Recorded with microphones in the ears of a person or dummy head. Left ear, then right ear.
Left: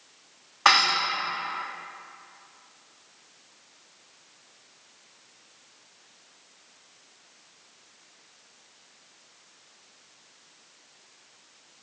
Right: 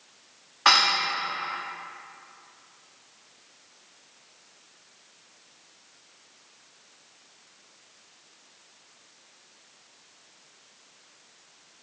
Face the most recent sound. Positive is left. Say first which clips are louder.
# even
turn(degrees=25)  # may be behind; listen again after turning